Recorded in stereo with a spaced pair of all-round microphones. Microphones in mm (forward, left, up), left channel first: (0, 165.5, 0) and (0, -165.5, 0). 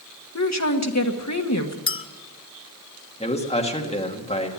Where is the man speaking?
20° left (ahead or behind), 1.7 m.